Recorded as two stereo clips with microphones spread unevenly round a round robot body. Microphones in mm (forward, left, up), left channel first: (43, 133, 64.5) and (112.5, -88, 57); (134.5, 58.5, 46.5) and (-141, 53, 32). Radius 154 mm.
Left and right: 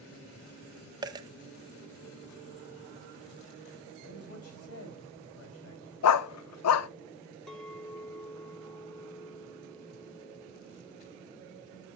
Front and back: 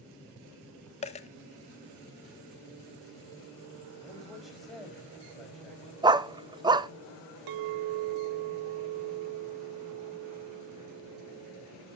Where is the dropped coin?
15° right, 0.6 m.